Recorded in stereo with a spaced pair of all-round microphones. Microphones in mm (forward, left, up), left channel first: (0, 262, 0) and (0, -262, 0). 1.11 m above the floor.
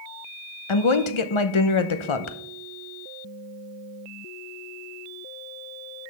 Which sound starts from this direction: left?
A woman speaking, at 0.7 s.